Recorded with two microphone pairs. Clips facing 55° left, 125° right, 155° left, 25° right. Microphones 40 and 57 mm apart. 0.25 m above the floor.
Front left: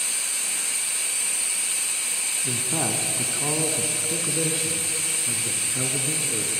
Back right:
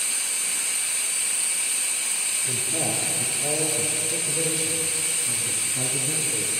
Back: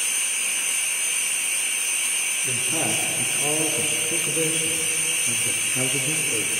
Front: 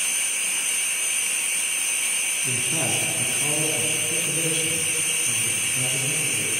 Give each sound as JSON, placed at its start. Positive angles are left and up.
{"t": 2.4, "sound": "a man speaking", "azimuth_deg": 65, "distance_m": 3.0}